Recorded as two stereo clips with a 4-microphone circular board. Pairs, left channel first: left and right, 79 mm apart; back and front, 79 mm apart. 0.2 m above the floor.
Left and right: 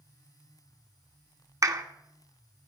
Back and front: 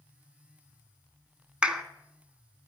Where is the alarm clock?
No alarm clock in this recording.